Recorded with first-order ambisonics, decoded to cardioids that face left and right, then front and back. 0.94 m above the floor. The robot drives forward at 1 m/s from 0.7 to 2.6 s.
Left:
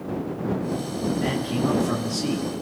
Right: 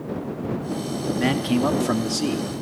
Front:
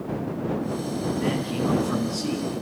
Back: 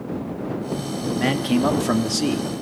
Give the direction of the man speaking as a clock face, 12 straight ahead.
5 o'clock.